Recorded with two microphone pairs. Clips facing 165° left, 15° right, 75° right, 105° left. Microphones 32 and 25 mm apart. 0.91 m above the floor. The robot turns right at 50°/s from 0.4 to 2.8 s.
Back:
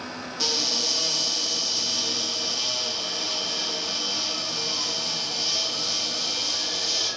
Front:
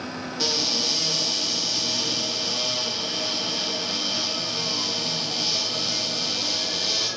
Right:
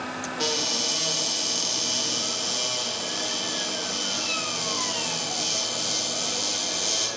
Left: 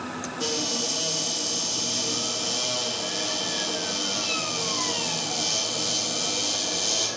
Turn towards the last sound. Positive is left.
turn(degrees=25)